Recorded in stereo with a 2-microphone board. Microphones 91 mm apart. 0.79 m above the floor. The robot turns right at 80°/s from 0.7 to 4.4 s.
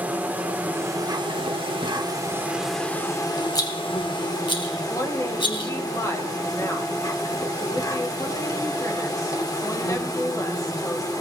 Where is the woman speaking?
40° left (ahead or behind), 3 m.